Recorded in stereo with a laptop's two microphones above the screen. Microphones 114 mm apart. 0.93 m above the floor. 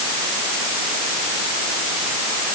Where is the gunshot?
I don't hear a gunshot.